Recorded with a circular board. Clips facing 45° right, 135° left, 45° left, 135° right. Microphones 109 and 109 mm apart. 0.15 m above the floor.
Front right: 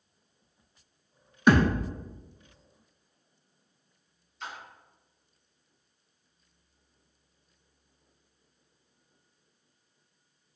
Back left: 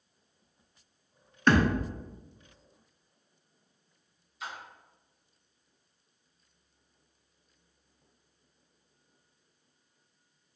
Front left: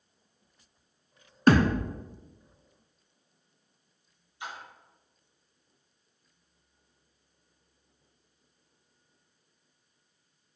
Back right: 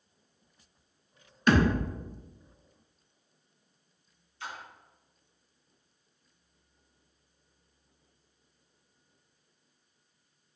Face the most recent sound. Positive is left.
turn(degrees=60)